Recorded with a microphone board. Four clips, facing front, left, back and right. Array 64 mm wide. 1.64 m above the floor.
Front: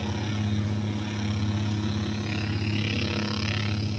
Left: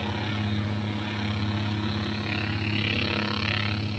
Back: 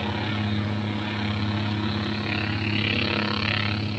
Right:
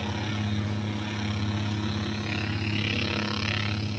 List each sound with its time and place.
0.0 s a helicopter: 160° left